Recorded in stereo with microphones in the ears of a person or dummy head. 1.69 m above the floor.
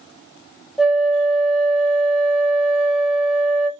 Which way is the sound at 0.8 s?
Centre (ahead or behind).